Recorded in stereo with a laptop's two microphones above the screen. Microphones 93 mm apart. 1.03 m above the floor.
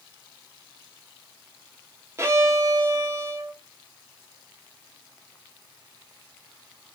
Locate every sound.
2.2 s a violin: 30° right (ahead or behind), 0.6 m